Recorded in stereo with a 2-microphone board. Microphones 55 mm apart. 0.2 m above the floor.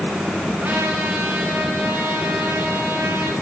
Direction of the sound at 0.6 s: 40° right (ahead or behind).